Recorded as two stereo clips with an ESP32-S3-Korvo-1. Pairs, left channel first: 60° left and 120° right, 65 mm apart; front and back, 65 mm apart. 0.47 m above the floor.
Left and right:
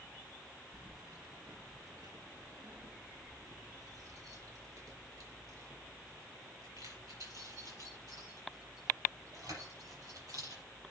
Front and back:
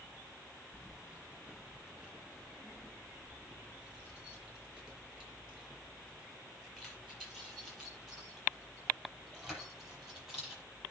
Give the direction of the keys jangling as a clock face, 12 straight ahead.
4 o'clock.